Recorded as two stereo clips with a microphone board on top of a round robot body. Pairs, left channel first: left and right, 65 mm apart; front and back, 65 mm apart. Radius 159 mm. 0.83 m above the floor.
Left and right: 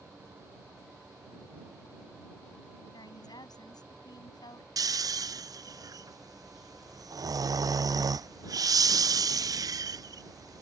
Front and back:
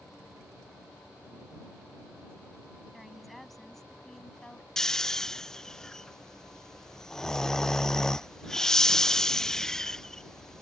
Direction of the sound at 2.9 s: 90° left.